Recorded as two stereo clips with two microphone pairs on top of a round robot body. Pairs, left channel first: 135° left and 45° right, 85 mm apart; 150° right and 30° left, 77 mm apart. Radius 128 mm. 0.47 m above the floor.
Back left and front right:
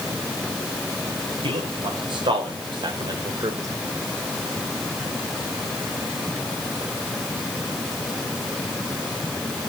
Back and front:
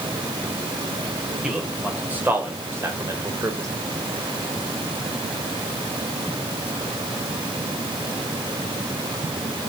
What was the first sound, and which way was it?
A man speaking, 50° right.